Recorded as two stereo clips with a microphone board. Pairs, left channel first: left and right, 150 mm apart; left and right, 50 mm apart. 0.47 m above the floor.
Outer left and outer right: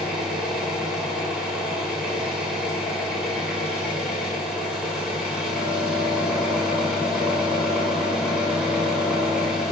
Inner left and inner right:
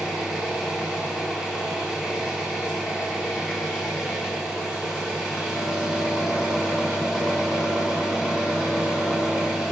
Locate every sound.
0.0 s an engine running: 5° right (ahead or behind), 2.5 m